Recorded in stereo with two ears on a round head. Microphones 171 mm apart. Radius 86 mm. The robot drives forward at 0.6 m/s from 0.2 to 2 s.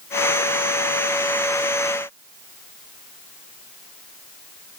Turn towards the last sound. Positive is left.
No sound to turn to.